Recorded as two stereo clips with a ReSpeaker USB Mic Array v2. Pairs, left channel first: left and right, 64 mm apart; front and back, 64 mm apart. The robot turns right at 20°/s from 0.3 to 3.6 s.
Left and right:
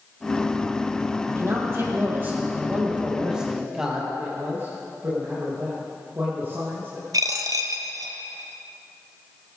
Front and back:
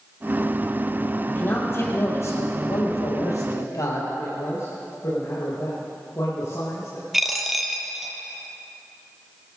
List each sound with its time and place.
1.3 s a man speaking: 55° right, 4.5 m; by 4.1 s 5° right, 4.5 m
4.2 s a man speaking: 35° right, 5.5 m
7.1 s a dropped coin: 95° right, 1.5 m